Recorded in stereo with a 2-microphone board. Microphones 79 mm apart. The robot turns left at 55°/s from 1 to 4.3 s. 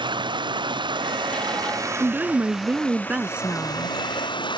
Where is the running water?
90° right; by 4.6 s 90° left.